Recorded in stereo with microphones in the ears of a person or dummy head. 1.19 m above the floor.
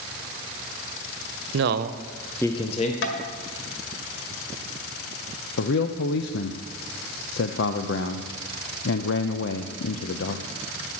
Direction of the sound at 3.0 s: 65° left (ahead or behind).